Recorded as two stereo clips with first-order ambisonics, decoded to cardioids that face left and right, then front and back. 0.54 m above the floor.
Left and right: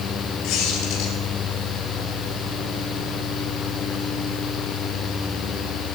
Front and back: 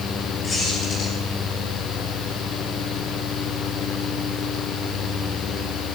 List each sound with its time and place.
0.4 s a squeak: 70° left, 6 m